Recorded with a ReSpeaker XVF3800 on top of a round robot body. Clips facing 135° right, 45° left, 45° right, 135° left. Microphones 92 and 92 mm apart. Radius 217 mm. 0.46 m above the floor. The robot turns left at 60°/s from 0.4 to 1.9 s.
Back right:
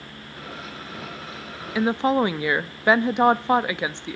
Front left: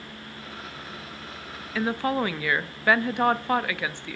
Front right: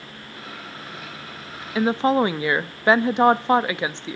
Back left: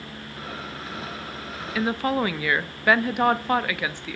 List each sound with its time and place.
1.8 s a woman speaking: 75° right, 0.8 m; by 4.2 s 85° right, 0.8 m